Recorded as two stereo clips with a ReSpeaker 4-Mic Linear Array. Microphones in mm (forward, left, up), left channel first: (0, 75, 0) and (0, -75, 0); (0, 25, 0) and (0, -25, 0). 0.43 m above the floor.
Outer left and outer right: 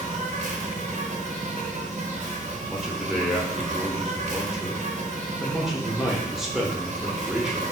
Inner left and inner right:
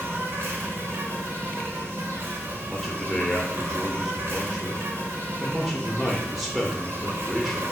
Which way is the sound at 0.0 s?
50° right (ahead or behind).